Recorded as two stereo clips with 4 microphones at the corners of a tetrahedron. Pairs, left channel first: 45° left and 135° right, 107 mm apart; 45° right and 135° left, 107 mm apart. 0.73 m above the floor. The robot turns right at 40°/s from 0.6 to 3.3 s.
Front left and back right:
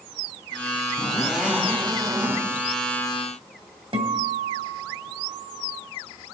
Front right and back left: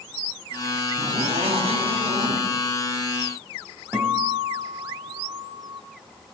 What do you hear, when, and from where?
1.0 s a zipper: 130° left, 2.5 m; by 2.4 s 175° right, 2.5 m
3.9 s a guitar: 160° right, 1.6 m